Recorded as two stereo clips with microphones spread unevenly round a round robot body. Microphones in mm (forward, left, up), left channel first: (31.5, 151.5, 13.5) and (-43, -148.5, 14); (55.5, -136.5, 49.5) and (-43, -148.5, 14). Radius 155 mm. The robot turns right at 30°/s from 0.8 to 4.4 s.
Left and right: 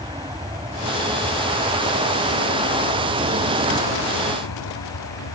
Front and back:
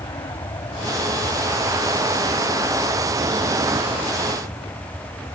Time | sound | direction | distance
0.0 | an aircraft | 30° right | ?